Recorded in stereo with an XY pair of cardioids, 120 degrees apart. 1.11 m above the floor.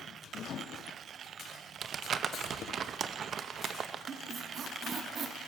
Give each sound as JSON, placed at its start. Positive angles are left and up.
{"t": 0.4, "sound": "a microwave", "azimuth_deg": 55, "distance_m": 1.2}
{"t": 1.8, "sound": "crumpling", "azimuth_deg": -50, "distance_m": 0.7}
{"t": 4.1, "sound": "a squeak", "azimuth_deg": -50, "distance_m": 1.6}